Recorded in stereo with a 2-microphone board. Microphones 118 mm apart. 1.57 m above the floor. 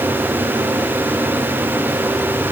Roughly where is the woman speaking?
I don't hear a woman speaking.